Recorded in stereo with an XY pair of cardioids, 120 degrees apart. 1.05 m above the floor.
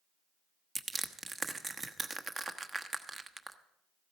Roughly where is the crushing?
Ahead right.